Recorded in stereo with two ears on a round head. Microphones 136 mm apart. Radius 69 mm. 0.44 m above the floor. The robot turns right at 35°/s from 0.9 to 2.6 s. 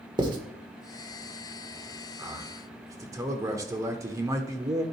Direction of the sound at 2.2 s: 20° right (ahead or behind).